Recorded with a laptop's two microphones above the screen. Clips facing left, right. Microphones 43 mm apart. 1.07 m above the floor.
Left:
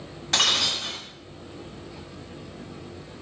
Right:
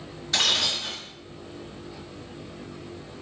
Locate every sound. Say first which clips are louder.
0.3 s breaking glass: left 1 dB; 60° left (ahead or behind), 2 m